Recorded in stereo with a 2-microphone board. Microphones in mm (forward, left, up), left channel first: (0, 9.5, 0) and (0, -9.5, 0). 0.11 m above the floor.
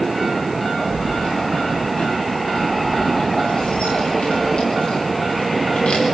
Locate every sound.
0.9 s keys jangling: 75° left (ahead or behind), 9.5 m